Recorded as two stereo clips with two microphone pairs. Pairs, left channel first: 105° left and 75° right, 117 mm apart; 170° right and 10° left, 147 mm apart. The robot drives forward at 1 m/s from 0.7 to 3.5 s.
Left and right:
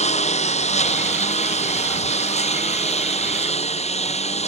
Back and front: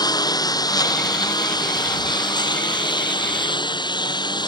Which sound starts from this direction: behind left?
A lawn mower, at 0.0 s.